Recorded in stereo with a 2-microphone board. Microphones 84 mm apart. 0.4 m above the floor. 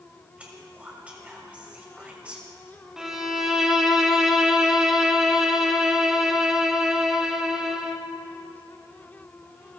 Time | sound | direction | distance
0.4 | whispering | 15° right (ahead or behind) | 1.7 m
3.0 | a violin | 5° right (ahead or behind) | 0.9 m